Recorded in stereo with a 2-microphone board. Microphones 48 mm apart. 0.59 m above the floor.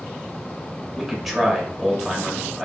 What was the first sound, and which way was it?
A man speaking, 5° right (ahead or behind).